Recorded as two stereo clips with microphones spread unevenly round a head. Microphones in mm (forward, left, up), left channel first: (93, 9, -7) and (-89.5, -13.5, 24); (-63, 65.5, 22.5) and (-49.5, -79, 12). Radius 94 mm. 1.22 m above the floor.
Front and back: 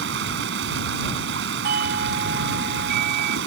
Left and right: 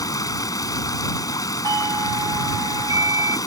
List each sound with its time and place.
0.0 s running water: 160° left
1.6 s a doorbell: 140° right